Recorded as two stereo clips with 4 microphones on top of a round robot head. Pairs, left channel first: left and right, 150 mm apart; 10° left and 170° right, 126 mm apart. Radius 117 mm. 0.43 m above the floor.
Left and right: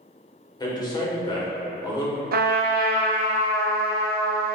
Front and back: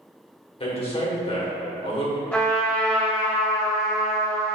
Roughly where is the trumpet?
Right.